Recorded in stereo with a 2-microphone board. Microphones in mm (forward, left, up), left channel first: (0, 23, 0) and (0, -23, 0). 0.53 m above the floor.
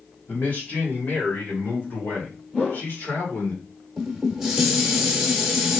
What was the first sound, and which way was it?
A man speaking, 45° left (ahead or behind).